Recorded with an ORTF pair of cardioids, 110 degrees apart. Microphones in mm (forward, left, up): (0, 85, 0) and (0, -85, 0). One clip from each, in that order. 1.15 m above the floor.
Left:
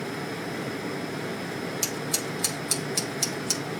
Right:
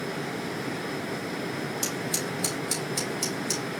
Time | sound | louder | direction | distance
1.8 | scissors | left 1 dB | 30° left | 2.5 m